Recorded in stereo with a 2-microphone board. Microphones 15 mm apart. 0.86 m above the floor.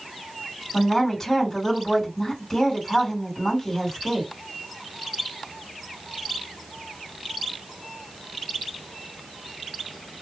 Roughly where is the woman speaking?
Left.